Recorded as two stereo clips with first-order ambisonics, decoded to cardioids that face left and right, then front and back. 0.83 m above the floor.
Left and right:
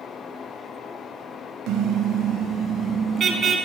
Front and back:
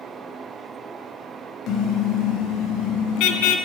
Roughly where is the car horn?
Ahead right.